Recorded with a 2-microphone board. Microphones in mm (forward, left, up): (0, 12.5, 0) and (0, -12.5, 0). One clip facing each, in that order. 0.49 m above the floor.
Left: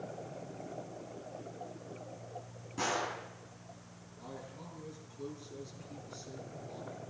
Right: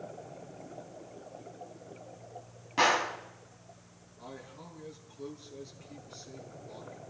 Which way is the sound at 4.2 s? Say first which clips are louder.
Right 1 dB; 15° right (ahead or behind).